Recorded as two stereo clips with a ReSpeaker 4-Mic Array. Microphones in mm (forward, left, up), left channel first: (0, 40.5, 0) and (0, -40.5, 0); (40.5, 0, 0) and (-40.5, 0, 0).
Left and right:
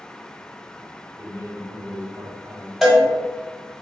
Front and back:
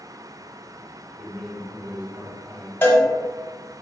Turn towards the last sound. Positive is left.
turn(degrees=5)